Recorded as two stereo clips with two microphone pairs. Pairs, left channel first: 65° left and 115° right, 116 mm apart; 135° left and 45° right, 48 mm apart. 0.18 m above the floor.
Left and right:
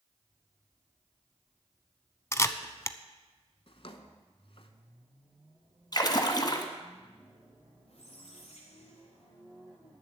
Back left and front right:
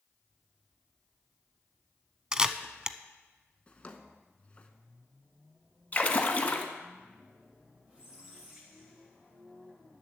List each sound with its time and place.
2.3 s a camera shutter: 15° left, 0.5 m
3.7 s a drawer: 75° left, 0.9 m
5.9 s a splash: 95° left, 1.3 m
7.9 s a squeak: 30° left, 3 m